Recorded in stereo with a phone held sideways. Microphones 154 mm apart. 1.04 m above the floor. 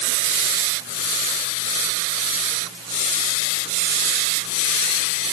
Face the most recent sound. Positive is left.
No sound to turn to.